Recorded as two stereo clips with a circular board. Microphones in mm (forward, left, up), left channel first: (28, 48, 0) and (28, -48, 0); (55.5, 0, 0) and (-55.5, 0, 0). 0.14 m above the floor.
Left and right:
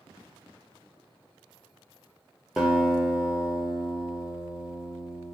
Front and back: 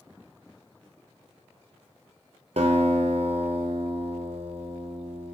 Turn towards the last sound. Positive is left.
turn(degrees=180)